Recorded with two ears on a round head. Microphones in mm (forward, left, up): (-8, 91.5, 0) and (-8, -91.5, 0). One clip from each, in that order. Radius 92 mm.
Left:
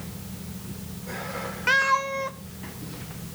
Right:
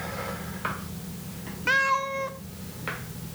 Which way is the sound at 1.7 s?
10° left (ahead or behind).